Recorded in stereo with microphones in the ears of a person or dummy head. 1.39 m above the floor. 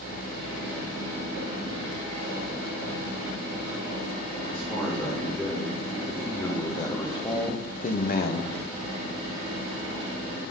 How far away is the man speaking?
About 3 m.